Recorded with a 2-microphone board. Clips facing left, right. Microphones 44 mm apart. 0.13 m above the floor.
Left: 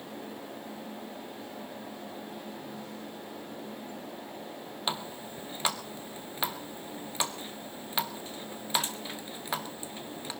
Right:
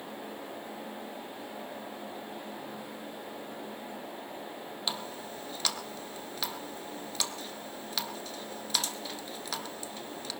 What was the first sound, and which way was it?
A running tap, 25° left (ahead or behind).